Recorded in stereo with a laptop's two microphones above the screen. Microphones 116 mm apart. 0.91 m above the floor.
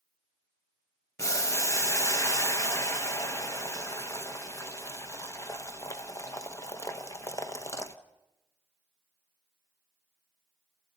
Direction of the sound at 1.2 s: 30° left (ahead or behind).